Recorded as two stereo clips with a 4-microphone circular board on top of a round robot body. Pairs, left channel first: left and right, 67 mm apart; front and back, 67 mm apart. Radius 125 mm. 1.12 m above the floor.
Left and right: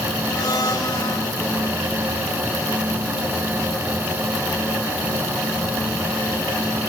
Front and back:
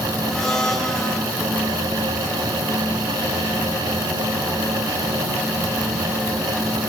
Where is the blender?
80° left, 8 m.